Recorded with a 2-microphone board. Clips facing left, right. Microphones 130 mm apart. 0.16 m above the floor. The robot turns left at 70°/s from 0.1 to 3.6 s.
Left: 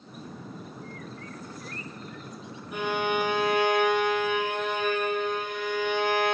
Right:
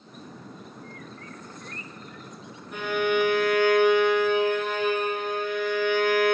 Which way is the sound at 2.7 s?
175° left.